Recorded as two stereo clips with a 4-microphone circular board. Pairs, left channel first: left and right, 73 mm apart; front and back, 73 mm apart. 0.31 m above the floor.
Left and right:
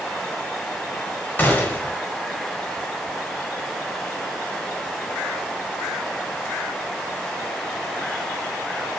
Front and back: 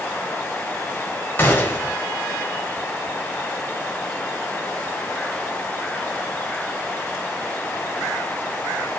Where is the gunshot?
40° left, 0.9 m.